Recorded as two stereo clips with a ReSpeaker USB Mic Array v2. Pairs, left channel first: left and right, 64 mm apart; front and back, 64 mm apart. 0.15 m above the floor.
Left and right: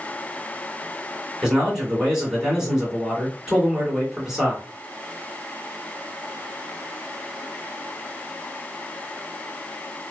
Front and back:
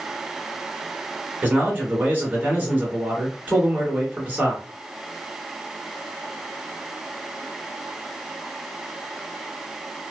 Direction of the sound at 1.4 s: 160° right.